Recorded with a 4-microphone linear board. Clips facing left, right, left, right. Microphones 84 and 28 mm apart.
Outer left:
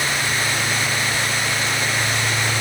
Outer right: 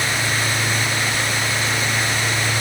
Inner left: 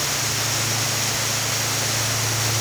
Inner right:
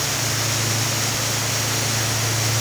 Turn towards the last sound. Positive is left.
No sound to turn to.